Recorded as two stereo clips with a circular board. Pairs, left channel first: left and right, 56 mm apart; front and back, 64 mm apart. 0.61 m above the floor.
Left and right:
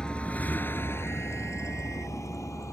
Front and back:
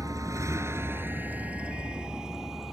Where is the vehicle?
160° left; by 2.8 s 95° left.